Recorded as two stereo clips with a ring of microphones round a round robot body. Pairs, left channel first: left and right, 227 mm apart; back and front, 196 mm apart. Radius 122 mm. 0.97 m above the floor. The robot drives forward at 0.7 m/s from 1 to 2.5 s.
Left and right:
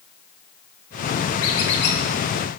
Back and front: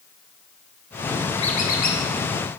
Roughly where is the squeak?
Behind left.